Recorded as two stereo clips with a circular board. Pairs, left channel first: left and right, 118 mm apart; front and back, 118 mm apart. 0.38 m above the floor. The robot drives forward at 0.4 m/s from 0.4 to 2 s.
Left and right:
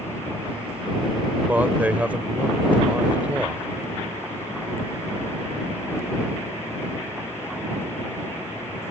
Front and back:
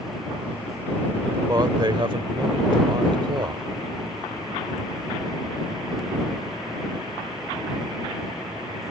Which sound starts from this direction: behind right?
A man speaking, at 1.5 s.